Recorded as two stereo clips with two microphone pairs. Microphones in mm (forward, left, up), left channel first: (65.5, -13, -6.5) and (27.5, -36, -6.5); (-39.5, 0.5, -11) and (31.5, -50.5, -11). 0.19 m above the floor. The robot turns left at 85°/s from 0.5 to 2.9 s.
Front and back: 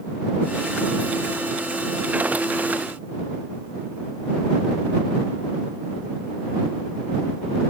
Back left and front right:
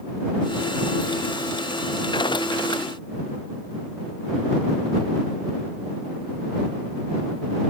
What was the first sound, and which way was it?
Only background noise.